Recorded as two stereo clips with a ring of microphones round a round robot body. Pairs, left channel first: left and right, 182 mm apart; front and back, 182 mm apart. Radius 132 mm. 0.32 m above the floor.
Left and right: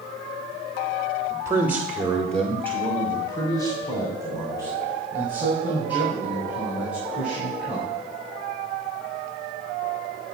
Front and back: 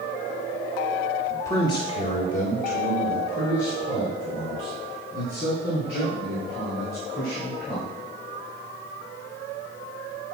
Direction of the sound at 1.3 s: 65° right.